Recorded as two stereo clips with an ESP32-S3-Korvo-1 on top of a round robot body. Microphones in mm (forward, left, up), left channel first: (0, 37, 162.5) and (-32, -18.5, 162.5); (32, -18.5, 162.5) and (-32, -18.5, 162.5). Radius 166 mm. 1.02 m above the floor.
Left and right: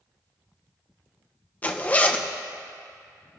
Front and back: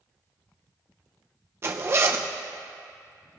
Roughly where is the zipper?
Behind left.